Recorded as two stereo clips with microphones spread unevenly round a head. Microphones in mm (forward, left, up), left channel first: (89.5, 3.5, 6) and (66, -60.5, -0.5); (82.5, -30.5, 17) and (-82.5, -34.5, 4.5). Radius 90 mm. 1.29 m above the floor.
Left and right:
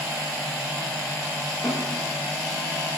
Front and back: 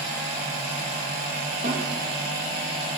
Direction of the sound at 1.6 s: 140° left.